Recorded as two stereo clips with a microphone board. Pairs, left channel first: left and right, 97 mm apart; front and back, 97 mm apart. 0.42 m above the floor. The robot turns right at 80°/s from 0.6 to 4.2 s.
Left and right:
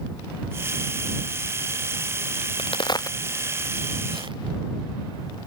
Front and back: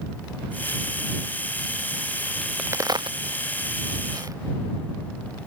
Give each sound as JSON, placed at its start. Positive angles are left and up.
{"t": 2.4, "sound": "a crack", "azimuth_deg": 90}